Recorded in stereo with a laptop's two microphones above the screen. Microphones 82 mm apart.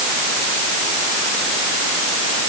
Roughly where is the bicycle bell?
I don't hear a bicycle bell.